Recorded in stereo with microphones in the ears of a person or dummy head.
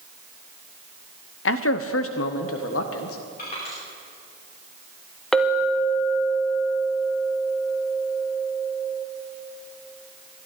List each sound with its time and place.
1.4 s a man speaking: 65° left (ahead or behind), 0.7 m; by 3.2 s 80° left, 1.7 m
3.4 s crushing: 55° left (ahead or behind), 5 m
5.3 s a clink: 10° left (ahead or behind), 1.0 m